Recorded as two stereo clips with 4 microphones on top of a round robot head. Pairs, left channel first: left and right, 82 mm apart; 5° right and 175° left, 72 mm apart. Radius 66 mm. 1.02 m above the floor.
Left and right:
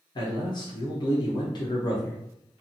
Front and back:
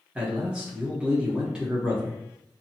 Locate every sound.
0.1 s a man speaking: 95° left, 0.9 m